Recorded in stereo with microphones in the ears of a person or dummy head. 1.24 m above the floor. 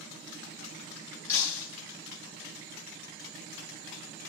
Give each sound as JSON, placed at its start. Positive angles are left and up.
{"t": 1.3, "sound": "breaking glass", "side_deg": 20, "distance_m": 7.5}